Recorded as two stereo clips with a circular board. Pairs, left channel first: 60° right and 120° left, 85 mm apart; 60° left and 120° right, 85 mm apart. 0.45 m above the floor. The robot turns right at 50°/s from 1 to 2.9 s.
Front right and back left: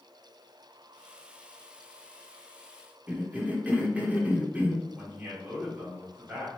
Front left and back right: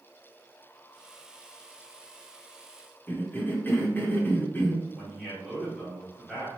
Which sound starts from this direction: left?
A cough, at 3.1 s.